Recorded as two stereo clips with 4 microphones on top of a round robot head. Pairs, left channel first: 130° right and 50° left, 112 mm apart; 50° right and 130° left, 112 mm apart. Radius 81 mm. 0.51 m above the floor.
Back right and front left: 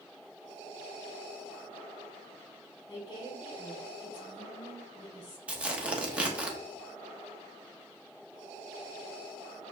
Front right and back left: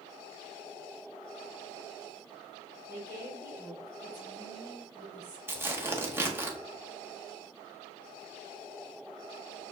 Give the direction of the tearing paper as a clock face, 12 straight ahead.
8 o'clock.